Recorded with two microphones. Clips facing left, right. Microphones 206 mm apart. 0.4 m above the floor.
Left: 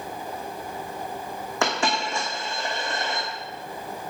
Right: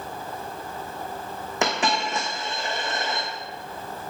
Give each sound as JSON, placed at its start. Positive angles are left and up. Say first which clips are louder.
{"t": 1.6, "sound": "a dropped coin", "louder": "right 1 dB", "side_deg": -20, "distance_m": 2.5}